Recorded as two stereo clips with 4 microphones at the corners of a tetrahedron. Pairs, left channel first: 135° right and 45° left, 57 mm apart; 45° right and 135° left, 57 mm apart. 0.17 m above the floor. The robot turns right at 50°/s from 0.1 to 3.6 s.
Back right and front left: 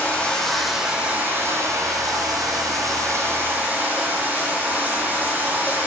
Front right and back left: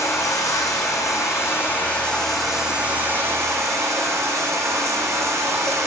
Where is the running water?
70° right, 1.3 m; by 5.9 s 105° left, 1.3 m.